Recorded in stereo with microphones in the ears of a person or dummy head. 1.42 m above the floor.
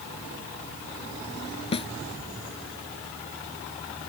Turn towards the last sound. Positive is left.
turn(degrees=35)  # may be behind; listen again after turning